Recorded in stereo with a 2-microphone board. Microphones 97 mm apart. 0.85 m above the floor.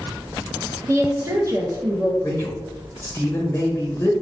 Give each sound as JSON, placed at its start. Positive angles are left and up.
{"t": 0.9, "sound": "a woman speaking", "side_deg": -30, "distance_m": 0.7}
{"t": 2.2, "sound": "a man speaking", "side_deg": 20, "distance_m": 1.2}